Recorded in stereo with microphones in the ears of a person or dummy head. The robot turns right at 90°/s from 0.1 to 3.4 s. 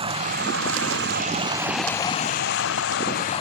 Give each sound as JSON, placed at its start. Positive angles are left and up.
{"t": 0.0, "sound": "running water", "azimuth_deg": -150}